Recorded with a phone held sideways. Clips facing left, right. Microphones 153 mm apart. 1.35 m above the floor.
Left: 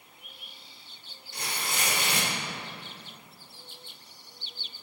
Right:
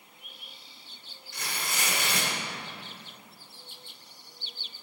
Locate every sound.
1.3 s tearing paper: 35° left (ahead or behind), 1.4 m